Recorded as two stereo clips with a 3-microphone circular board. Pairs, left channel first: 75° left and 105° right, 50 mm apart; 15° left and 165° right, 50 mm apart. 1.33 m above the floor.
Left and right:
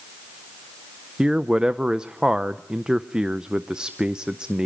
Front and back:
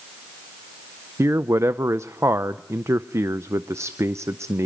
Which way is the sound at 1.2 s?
175° right.